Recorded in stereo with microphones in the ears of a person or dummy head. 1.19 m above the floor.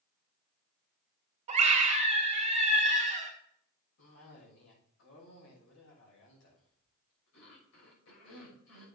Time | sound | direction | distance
1.5 | a scream | 35° right (ahead or behind) | 2 m
4.0 | a cough | 80° left | 6.5 m